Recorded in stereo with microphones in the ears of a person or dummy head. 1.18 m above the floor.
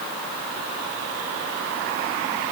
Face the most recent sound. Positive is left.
No sound to turn to.